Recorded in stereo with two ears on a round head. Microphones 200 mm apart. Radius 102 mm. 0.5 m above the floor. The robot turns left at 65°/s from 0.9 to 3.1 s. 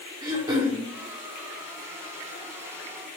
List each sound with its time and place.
0.2 s throat clearing: 15° right (ahead or behind), 0.6 m